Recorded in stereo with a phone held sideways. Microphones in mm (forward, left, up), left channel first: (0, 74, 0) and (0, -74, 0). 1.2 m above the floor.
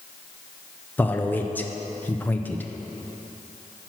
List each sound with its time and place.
1.0 s a man speaking: 10° left (ahead or behind), 0.5 m